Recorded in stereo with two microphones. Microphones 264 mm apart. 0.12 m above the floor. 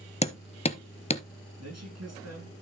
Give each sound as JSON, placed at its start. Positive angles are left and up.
{"t": 0.2, "sound": "hammering", "side_deg": 25, "distance_m": 0.6}
{"t": 1.6, "sound": "a man speaking", "side_deg": -70, "distance_m": 6.5}